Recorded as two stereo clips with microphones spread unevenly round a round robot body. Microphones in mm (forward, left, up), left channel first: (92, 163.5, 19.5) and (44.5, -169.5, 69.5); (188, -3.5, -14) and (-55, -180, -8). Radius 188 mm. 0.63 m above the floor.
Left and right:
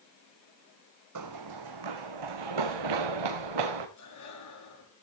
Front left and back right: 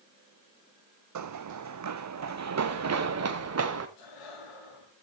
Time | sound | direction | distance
1.1 | running footsteps | 130° right | 1.2 m
4.0 | breathing | 45° left | 8 m